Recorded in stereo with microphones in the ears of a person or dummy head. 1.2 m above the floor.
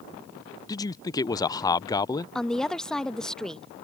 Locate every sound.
0.7 s a man speaking: 15° left (ahead or behind)
2.4 s a woman speaking: 5° left (ahead or behind)